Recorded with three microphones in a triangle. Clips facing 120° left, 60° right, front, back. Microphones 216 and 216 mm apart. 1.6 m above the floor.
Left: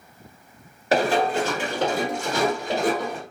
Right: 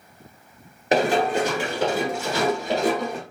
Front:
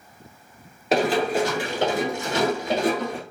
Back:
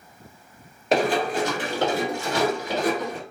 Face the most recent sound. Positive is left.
turn(degrees=40)